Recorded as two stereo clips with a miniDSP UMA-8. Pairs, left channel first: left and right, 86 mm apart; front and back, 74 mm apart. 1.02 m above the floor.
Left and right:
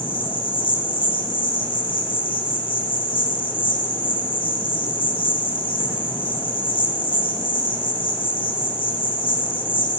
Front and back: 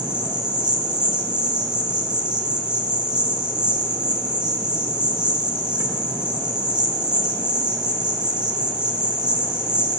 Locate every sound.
0.0 s an insect: 105° left, 0.9 m